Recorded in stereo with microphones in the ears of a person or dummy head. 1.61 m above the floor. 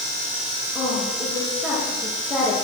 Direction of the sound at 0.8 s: 10° left (ahead or behind).